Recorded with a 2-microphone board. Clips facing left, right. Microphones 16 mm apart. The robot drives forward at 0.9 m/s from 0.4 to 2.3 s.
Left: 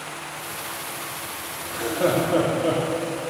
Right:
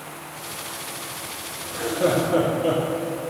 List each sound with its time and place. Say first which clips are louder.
1.6 s laughter: even; 65° left (ahead or behind), 2.5 m; by 2.8 s 55° left (ahead or behind), 2.5 m